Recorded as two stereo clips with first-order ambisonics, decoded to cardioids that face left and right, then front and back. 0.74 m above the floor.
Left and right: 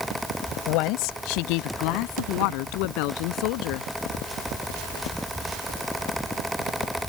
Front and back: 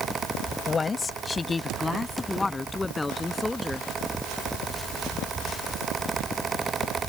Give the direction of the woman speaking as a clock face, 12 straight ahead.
10 o'clock.